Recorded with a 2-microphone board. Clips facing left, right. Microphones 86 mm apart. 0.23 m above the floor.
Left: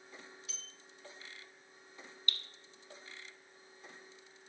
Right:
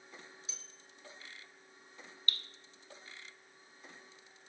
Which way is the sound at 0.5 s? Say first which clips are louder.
Left 1 dB; 25° right (ahead or behind).